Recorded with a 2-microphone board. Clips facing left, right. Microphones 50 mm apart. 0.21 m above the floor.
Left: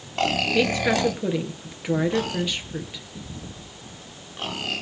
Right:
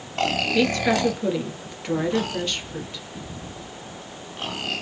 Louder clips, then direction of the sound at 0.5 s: Right 1 dB; 10° left (ahead or behind).